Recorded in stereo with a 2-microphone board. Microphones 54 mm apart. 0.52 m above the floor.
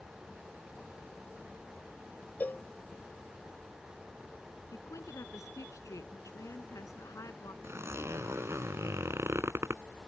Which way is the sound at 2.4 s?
35° left (ahead or behind).